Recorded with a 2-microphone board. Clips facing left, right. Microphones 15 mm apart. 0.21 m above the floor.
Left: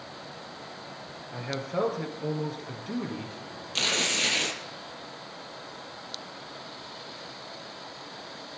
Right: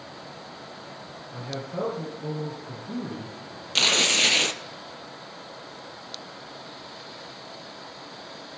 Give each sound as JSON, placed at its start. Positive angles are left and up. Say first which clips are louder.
{"t": 1.3, "sound": "a man speaking", "louder": "left 2 dB", "side_deg": 60, "distance_m": 3.5}
{"t": 3.8, "sound": "tearing paper", "louder": "right 6 dB", "side_deg": -30, "distance_m": 0.8}